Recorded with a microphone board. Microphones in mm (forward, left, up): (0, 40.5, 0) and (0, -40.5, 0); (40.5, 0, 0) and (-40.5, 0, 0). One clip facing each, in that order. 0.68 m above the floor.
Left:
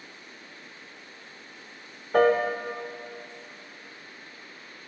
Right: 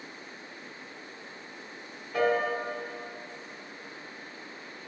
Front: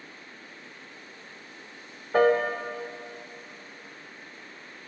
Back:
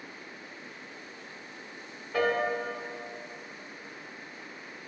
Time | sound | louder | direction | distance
2.1 | a piano | left 6 dB, front 6 dB | 50° left | 0.6 m